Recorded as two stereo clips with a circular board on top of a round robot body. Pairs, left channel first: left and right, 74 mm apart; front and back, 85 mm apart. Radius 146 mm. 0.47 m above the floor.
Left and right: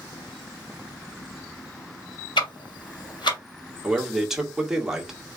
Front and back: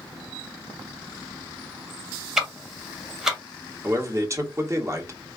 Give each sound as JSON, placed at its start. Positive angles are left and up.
{"t": 2.4, "sound": "ticking", "azimuth_deg": 95, "distance_m": 1.9}
{"t": 3.8, "sound": "a man speaking", "azimuth_deg": -165, "distance_m": 1.5}